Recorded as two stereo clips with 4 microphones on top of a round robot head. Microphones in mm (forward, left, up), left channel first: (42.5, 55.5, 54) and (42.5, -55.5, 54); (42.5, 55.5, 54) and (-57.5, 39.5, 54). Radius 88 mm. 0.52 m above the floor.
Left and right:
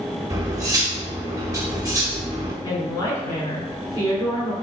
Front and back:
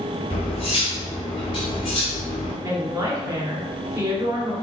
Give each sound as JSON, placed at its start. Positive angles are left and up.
{"t": 0.3, "sound": "cutlery clinking", "azimuth_deg": -30, "distance_m": 1.4}
{"t": 2.6, "sound": "a woman speaking", "azimuth_deg": 135, "distance_m": 1.8}